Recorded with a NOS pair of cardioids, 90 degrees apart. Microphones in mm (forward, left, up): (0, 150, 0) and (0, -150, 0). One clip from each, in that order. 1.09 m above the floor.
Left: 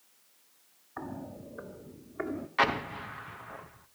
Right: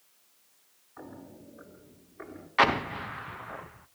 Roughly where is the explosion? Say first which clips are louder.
Right 4 dB; ahead.